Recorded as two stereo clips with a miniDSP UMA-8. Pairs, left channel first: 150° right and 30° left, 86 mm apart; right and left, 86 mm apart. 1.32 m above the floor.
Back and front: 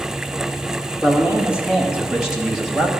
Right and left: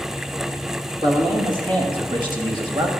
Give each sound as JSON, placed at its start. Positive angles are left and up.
{"t": 1.0, "sound": "a man speaking", "azimuth_deg": 105, "distance_m": 2.5}